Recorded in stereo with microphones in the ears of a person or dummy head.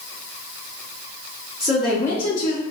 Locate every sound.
1.6 s a woman speaking: 20° right (ahead or behind), 0.6 m; by 2.6 s 60° left (ahead or behind), 0.6 m